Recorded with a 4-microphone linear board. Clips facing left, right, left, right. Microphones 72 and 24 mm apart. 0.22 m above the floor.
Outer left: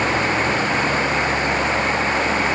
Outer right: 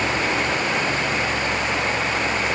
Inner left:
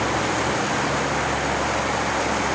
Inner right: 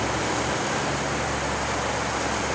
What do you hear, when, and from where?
Only background noise.